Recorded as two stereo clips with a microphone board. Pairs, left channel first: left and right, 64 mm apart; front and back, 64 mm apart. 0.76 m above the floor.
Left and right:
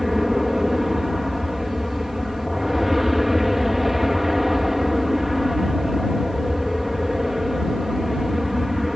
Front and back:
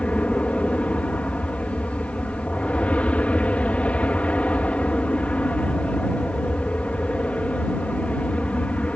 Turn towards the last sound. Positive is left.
turn(degrees=-10)